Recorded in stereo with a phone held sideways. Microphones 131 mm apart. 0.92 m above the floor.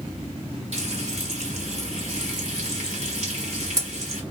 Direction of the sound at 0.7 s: 55° right (ahead or behind).